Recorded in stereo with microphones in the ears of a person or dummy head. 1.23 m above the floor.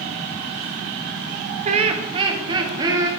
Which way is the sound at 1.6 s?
40° right (ahead or behind).